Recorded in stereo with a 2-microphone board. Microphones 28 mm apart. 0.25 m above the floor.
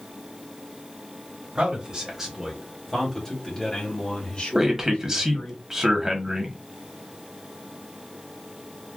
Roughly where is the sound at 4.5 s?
Right.